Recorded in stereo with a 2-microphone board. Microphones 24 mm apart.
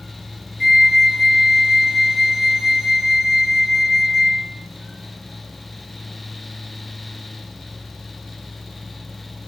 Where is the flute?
10° right (ahead or behind), 0.6 m.